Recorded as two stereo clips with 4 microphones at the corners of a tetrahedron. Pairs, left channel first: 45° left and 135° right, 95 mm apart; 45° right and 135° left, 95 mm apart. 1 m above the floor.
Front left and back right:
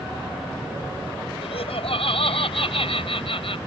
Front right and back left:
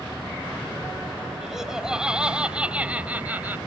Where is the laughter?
50° left; by 3.6 s 65° left.